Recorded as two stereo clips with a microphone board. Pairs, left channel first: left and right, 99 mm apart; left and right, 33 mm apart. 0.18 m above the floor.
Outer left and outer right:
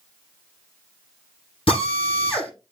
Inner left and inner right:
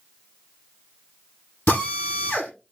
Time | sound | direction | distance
1.7 | a drill | 80° left | 7 m